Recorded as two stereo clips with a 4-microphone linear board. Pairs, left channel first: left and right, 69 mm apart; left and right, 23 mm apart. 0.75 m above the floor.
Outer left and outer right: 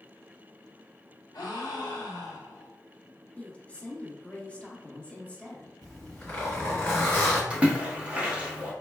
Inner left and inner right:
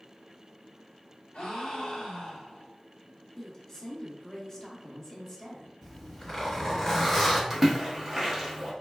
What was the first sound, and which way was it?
A gasp, 70° left (ahead or behind).